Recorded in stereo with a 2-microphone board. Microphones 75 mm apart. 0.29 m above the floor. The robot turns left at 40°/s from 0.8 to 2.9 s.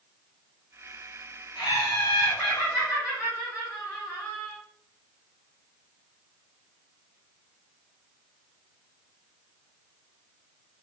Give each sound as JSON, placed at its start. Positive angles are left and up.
{"t": 1.6, "sound": "laughter", "azimuth_deg": 80, "distance_m": 2.5}